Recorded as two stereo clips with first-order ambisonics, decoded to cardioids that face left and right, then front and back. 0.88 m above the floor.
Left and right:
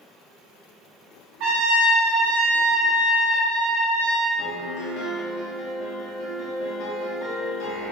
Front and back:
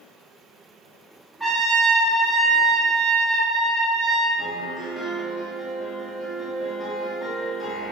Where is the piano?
75° left, 0.7 m.